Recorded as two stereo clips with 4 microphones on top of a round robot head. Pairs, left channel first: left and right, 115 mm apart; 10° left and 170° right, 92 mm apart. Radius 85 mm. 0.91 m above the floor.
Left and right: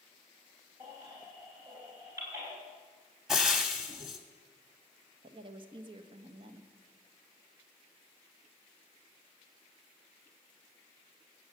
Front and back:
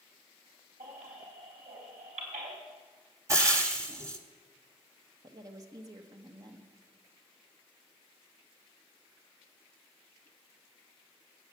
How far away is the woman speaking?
About 1.3 m.